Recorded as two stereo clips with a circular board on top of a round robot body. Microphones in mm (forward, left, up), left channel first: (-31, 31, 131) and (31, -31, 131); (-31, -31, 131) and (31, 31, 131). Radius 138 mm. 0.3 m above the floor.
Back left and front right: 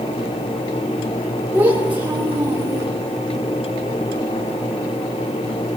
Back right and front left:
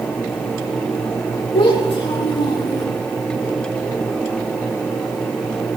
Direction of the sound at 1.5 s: 120° right.